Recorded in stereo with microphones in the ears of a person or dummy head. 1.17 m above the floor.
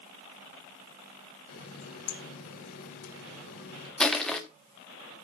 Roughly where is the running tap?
Left.